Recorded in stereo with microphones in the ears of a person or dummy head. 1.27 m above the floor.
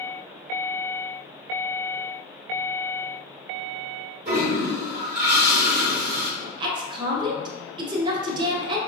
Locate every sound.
4.2 s a toilet flushing: 50° right (ahead or behind), 1.3 m
6.4 s a woman speaking: 25° right (ahead or behind), 0.7 m